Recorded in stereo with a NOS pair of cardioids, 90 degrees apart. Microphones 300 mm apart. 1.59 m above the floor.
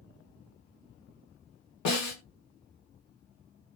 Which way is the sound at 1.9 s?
70° left.